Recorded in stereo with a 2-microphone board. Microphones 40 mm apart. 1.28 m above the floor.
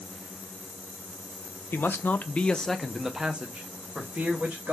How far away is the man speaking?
About 0.6 m.